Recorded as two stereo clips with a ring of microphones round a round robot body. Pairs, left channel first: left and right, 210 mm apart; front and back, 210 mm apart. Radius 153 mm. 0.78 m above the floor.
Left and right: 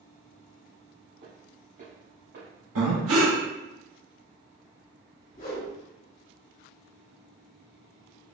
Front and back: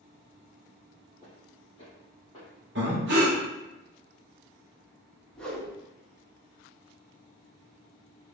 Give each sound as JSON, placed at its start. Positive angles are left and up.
{"t": 1.2, "sound": "footsteps", "azimuth_deg": -60, "distance_m": 1.9}
{"t": 2.8, "sound": "breathing", "azimuth_deg": -125, "distance_m": 0.6}
{"t": 5.3, "sound": "a whoosh", "azimuth_deg": 85, "distance_m": 1.2}